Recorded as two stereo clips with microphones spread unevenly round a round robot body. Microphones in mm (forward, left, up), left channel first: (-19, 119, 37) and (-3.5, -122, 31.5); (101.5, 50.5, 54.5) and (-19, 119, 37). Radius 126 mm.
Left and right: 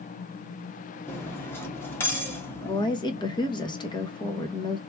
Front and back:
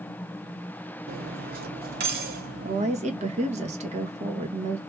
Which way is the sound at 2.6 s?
165° left.